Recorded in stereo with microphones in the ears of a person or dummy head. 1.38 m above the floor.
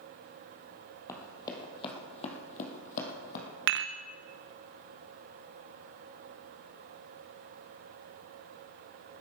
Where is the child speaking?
I don't hear a child speaking.